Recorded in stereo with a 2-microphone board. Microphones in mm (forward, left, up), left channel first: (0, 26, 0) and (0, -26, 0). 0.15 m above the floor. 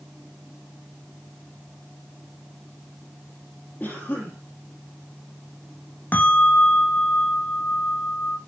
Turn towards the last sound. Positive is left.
turn(degrees=40)  # may be behind; listen again after turning